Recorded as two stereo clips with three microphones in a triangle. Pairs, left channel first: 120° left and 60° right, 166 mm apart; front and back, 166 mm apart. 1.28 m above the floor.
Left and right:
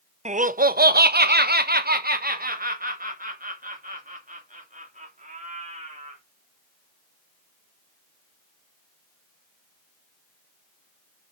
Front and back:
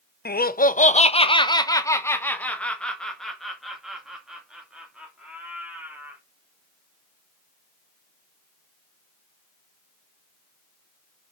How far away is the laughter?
About 0.7 m.